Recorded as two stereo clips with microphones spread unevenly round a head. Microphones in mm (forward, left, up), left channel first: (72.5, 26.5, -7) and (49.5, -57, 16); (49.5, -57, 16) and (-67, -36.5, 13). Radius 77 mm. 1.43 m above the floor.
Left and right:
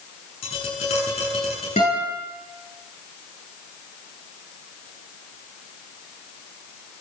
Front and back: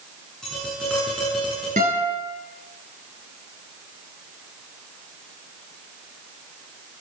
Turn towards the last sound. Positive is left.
turn(degrees=120)